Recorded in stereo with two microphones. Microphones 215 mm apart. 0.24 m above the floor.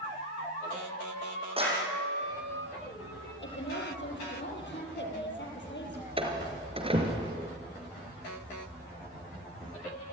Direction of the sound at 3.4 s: 60° left (ahead or behind).